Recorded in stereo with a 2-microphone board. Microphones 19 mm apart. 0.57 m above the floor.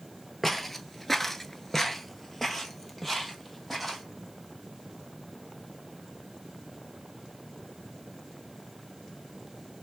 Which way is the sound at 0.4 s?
5° left (ahead or behind).